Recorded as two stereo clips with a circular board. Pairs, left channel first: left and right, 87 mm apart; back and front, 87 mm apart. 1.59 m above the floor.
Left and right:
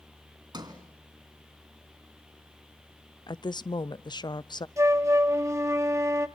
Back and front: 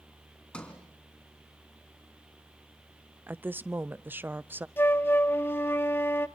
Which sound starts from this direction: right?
A sliding door, at 0.5 s.